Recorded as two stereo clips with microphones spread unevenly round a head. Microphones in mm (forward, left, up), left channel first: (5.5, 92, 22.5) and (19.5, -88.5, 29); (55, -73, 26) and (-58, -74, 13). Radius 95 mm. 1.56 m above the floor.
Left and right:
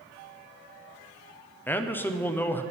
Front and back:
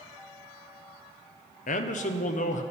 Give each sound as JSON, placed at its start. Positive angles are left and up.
{"t": 1.7, "sound": "a man speaking", "azimuth_deg": 15, "distance_m": 0.6}